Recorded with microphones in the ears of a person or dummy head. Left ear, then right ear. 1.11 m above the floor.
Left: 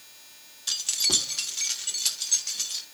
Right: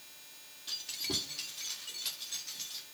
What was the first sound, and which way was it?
Keys jangling, 65° left (ahead or behind).